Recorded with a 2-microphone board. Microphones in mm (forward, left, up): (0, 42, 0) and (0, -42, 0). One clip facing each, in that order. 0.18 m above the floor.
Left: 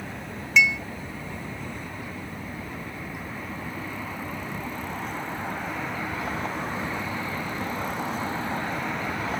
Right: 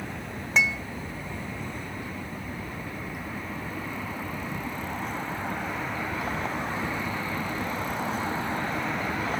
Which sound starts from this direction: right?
Dishes clattering, at 0.6 s.